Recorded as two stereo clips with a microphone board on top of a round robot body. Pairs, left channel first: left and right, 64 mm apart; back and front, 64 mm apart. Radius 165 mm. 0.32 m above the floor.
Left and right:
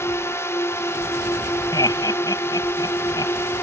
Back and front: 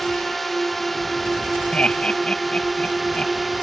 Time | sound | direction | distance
0.0 | a drone | 90° left | ?
1.7 | laughter | 105° left | ?